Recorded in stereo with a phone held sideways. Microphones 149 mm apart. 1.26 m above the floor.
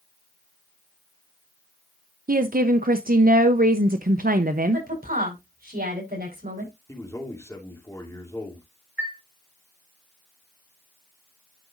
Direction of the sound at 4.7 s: 80° right.